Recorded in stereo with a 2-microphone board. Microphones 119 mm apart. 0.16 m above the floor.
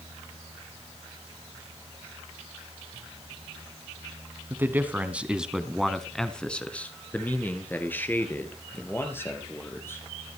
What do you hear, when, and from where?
4.5 s a man speaking: 20° right (ahead or behind), 1.1 m; by 10.0 s 20° left (ahead or behind), 3.5 m